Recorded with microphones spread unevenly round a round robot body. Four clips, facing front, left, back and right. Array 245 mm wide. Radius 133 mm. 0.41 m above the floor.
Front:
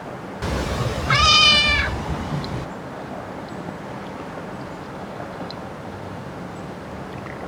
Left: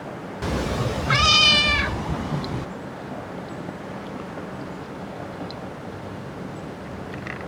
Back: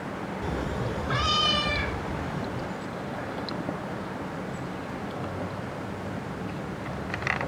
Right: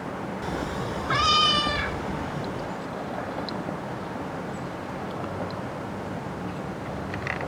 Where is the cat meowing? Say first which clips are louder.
Left 7 dB, front 7 dB; 15° left, 0.6 m; by 2.7 s 35° left, 1.7 m.